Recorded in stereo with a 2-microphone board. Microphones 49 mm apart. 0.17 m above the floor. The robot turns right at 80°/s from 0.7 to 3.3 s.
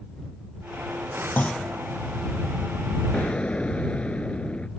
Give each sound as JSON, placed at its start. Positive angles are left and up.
{"t": 1.4, "sound": "a clunk", "side_deg": 40}
{"t": 3.1, "sound": "an explosion", "side_deg": 35}